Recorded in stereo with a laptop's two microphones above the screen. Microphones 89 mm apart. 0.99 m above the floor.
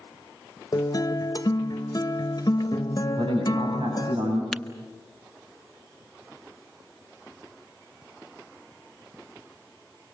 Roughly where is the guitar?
Left.